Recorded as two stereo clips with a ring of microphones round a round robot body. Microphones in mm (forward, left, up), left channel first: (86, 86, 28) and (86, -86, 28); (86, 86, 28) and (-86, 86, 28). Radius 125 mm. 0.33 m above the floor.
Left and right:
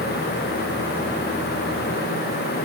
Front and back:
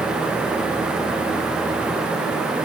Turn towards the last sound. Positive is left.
No sound to turn to.